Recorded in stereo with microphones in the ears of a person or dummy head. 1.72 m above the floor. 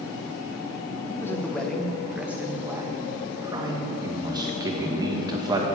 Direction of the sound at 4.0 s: 15° right (ahead or behind).